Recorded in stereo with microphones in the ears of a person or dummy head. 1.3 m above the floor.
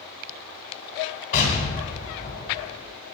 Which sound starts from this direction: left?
An explosion, at 1.3 s.